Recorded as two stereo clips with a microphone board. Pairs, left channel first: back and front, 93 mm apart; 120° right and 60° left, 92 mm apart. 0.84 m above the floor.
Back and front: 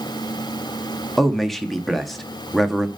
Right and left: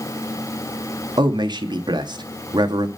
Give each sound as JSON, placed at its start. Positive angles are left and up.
{"t": 1.2, "sound": "a man speaking", "azimuth_deg": 90, "distance_m": 1.2}